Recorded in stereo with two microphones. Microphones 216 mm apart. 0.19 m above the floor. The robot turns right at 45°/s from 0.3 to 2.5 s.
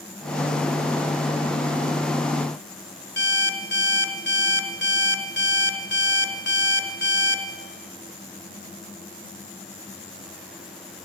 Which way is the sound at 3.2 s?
55° left (ahead or behind).